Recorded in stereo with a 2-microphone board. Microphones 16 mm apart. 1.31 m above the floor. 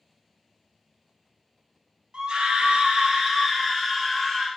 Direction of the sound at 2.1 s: 70° right (ahead or behind).